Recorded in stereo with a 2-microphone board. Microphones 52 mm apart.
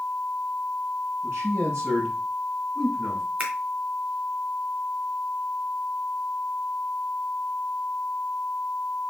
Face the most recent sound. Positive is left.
turn(degrees=-30)  # may be behind; listen again after turning